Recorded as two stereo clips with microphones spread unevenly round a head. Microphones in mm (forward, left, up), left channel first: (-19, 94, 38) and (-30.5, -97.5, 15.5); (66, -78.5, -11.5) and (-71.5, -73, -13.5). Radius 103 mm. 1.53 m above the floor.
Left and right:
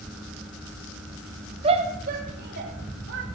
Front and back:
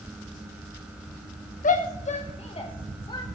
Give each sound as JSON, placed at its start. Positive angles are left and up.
{"t": 1.6, "sound": "a shout", "azimuth_deg": -30, "distance_m": 1.5}